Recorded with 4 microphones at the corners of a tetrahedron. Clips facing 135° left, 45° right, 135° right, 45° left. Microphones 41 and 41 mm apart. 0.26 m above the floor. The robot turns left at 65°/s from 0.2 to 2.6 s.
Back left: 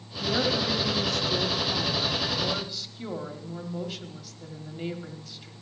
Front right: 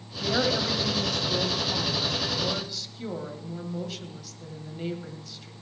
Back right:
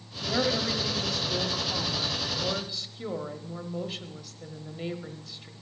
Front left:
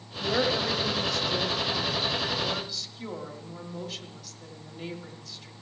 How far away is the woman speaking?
About 1.1 m.